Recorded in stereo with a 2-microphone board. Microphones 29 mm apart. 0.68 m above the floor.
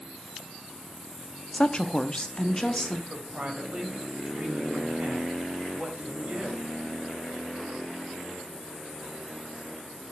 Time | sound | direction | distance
1.5 | a woman speaking | 30° left (ahead or behind) | 0.7 m
3.1 | a woman speaking | 45° right (ahead or behind) | 3 m